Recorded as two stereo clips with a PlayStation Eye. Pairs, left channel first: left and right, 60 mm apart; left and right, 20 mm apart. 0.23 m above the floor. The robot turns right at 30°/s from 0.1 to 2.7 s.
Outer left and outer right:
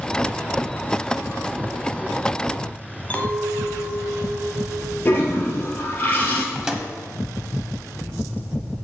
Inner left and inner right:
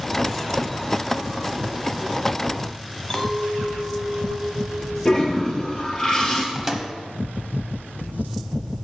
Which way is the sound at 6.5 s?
10° right (ahead or behind).